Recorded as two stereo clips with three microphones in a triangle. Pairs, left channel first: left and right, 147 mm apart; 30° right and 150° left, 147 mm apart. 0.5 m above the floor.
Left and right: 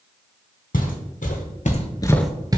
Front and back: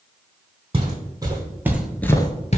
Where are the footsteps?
95° left, 1.5 m; by 2.6 s 40° right, 0.6 m.